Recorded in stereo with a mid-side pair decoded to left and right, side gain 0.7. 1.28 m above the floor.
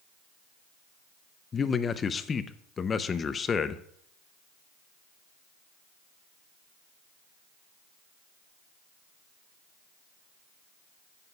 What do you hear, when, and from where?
1.5 s a man speaking: 25° left, 0.6 m